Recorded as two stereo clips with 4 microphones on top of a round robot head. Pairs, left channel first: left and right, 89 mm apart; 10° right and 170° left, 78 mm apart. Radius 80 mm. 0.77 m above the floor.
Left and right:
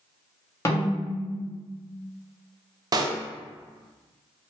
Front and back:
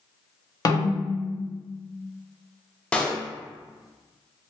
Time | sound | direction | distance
0.7 | a snare drum | 30° left | 0.9 m
2.9 | a pop | 80° right | 0.6 m